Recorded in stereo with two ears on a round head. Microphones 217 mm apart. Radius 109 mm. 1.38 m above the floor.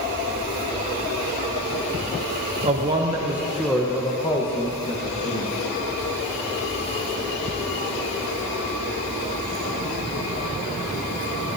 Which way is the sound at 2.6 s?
25° right (ahead or behind).